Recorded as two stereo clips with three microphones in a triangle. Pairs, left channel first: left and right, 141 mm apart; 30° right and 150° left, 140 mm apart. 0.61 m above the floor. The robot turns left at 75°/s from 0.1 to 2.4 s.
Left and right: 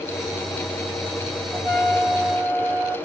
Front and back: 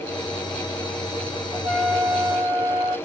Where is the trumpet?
160° left, 1.7 m; by 3.0 s 95° left, 1.7 m.